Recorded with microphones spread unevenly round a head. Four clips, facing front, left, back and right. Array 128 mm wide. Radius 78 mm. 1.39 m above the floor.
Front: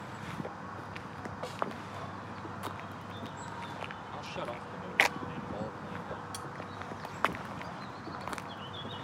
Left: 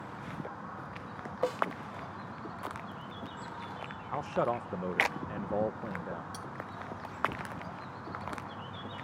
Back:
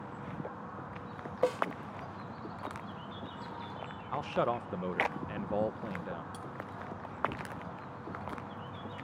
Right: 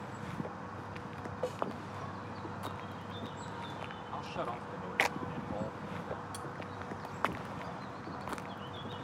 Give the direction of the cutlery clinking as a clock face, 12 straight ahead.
10 o'clock.